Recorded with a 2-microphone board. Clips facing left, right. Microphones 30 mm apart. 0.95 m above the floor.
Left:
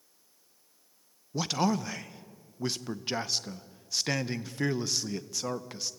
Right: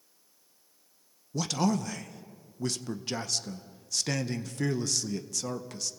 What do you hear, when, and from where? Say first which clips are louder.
1.3 s a man speaking: even; 20° left (ahead or behind), 0.7 m